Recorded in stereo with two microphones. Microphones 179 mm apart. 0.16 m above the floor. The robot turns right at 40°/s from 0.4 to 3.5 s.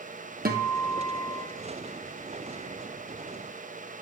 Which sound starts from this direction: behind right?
A guitar, at 0.5 s.